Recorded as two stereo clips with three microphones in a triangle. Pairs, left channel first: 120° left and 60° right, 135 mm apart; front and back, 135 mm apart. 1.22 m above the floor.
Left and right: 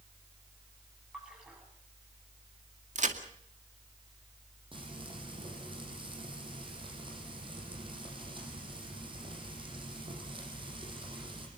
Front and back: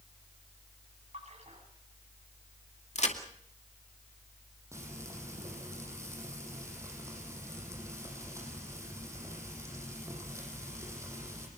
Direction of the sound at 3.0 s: 35° right.